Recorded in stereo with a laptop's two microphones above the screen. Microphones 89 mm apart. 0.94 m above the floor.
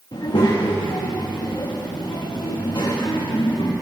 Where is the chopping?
No chopping in this recording.